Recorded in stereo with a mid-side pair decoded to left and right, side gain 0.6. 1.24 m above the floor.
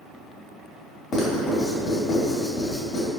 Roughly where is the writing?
Ahead left.